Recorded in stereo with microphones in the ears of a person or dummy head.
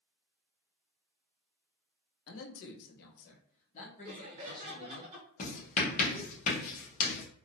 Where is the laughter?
30° right (ahead or behind), 1.1 m.